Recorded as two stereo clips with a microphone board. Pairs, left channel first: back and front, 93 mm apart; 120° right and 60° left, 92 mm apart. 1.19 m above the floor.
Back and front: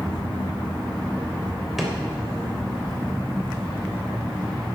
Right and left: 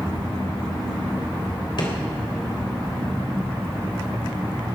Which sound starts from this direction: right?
A drawer, at 1.8 s.